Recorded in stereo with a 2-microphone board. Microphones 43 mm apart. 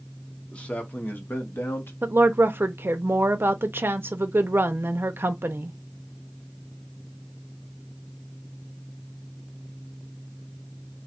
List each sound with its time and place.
0.5 s a man speaking: 25° left (ahead or behind), 1.0 m; by 1.9 s 70° left (ahead or behind), 1.3 m
2.0 s a woman speaking: 60° right (ahead or behind), 0.6 m